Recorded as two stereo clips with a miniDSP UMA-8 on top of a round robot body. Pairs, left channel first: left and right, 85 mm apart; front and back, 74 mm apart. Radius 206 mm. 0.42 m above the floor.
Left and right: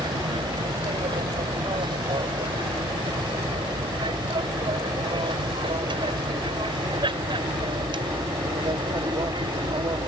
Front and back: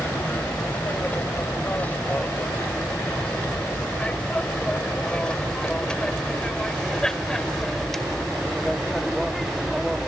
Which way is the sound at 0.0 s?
65° right.